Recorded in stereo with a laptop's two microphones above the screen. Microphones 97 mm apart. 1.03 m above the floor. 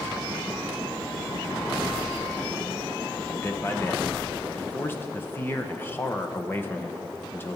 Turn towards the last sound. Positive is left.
turn(degrees=20)  # may be behind; listen again after turning